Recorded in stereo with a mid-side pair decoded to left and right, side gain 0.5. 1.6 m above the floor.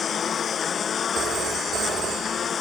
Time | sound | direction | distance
0.0 | a lawn mower | 45° left | ?
1.1 | a phone ringing | 60° right | ?